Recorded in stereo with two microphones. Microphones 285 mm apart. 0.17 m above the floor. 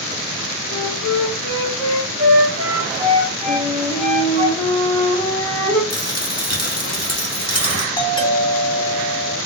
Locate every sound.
0.7 s a flute: 20° right (ahead or behind), 2.5 m
3.5 s a flute: 20° left (ahead or behind), 3 m
5.9 s a dropped coin: 60° left (ahead or behind), 1.2 m
8.0 s a doorbell: 15° left (ahead or behind), 1.9 m